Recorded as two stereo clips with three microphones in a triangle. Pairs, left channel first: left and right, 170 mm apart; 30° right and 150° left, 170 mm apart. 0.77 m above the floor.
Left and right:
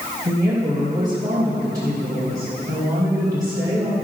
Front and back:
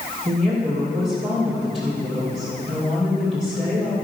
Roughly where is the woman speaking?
Behind right.